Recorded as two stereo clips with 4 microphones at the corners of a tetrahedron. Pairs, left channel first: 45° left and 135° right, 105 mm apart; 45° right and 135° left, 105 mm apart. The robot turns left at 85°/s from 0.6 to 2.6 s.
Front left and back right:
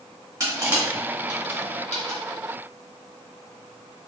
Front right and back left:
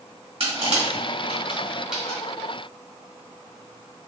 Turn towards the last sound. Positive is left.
turn(degrees=-10)